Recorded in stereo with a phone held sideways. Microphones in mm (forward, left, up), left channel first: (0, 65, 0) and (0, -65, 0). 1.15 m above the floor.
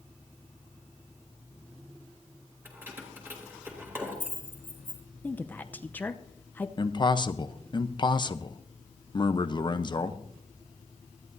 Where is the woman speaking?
15° left (ahead or behind), 0.7 m.